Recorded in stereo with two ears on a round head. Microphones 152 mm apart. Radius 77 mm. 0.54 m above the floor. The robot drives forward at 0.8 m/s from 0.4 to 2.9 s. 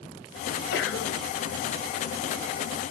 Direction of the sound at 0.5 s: 60° left (ahead or behind).